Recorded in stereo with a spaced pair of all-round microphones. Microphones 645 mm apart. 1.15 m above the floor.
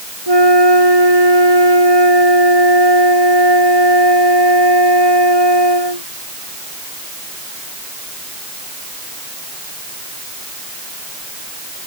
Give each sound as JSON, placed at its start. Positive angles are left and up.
{"t": 0.3, "sound": "a flute", "side_deg": -40}